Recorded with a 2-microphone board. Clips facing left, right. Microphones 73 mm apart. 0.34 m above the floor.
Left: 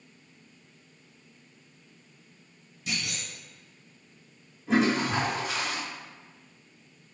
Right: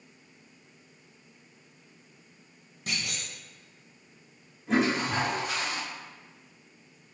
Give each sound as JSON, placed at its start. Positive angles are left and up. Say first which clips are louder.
{"t": 2.9, "sound": "a clunk", "louder": "left 1 dB", "side_deg": -50, "distance_m": 0.8}
{"t": 4.7, "sound": "a toilet flushing", "louder": "left 2 dB", "side_deg": 0, "distance_m": 1.6}